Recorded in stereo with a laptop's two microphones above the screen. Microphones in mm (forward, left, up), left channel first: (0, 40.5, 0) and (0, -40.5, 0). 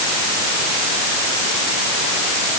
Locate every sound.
Only background noise.